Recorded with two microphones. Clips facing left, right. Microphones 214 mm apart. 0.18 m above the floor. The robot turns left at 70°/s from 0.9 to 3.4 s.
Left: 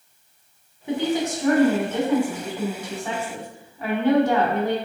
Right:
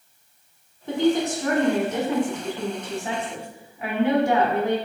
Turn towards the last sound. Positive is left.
turn(degrees=-15)  # may be behind; listen again after turning